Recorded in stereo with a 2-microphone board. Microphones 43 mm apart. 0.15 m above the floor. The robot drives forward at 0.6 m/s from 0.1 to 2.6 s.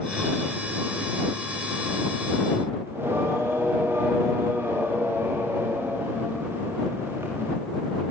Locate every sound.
2.9 s singing: 70° right (ahead or behind), 8.5 m